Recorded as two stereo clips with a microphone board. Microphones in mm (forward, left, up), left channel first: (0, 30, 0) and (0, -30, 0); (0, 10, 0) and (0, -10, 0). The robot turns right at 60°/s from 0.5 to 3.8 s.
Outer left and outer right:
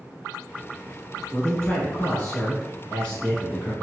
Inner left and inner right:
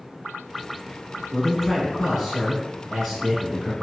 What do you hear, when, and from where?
1.3 s a man speaking: 10° left (ahead or behind), 1.2 m; by 3.7 s centre (ahead or behind), 1.2 m